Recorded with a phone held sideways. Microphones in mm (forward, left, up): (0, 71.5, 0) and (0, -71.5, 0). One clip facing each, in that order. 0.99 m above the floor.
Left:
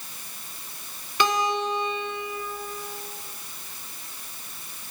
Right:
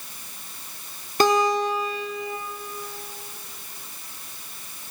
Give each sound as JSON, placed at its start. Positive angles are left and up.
{"t": 1.2, "sound": "a guitar", "side_deg": -45, "distance_m": 3.5}